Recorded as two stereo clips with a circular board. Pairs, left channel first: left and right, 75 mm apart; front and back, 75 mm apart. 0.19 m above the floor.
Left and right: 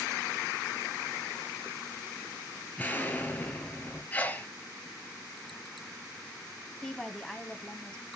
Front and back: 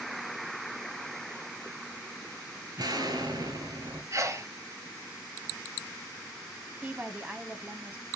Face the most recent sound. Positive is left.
turn(degrees=165)